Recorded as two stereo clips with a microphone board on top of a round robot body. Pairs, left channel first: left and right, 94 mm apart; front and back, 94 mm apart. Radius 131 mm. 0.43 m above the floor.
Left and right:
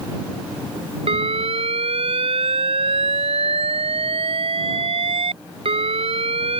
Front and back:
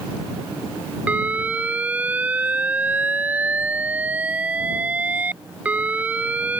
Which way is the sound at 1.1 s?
105° right.